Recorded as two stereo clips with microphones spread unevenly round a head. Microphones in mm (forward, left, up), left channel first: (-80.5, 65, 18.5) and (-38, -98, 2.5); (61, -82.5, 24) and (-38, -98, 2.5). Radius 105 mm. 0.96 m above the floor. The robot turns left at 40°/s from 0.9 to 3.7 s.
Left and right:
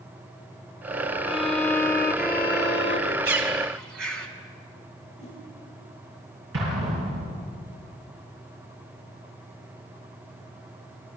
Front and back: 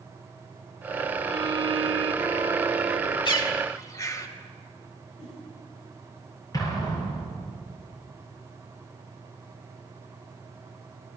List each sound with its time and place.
1.3 s a violin: 170° left, 1.6 m; by 3.1 s 95° left, 1.6 m
3.2 s a bird: 25° right, 2.5 m; by 4.3 s 45° right, 2.5 m
5.2 s a whoosh: 15° left, 10 m
6.5 s an explosion: 40° right, 9 m